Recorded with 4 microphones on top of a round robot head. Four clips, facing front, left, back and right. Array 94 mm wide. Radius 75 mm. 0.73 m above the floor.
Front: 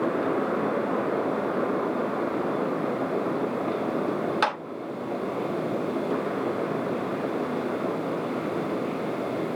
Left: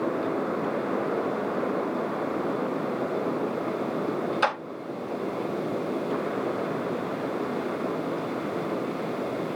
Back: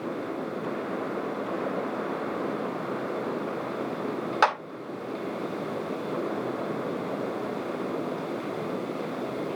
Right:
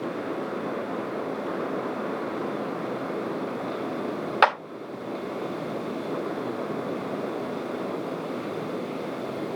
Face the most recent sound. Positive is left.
turn(degrees=-115)